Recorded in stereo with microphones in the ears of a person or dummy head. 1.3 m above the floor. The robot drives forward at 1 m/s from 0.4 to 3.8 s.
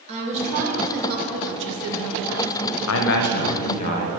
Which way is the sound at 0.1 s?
30° right (ahead or behind).